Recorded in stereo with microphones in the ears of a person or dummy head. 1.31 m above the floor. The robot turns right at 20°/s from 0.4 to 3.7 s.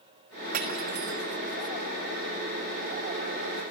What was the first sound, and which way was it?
Cutlery clinking, 55° right (ahead or behind).